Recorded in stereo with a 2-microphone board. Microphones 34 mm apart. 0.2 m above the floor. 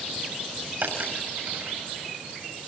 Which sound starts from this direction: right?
A dropped coin, at 0.8 s.